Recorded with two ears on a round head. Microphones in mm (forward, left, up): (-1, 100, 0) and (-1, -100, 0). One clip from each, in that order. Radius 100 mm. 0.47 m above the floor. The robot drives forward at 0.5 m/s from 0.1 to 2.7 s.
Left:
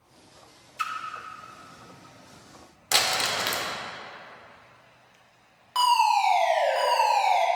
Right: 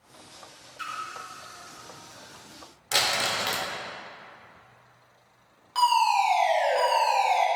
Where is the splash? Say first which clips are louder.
Left 5 dB; 40° left (ahead or behind), 1.1 m; by 0.9 s 45° left (ahead or behind), 1.0 m.